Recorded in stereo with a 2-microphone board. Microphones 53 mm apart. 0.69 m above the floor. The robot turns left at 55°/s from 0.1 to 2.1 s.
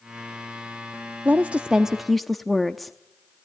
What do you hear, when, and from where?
1.2 s a woman speaking: 135° right, 0.7 m; by 3.0 s 175° left, 0.7 m